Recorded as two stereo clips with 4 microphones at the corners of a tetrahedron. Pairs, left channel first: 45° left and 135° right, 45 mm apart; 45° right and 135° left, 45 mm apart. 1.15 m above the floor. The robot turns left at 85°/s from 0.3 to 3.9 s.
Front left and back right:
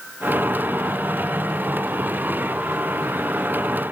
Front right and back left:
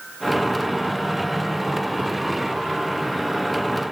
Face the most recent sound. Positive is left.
No sound to turn to.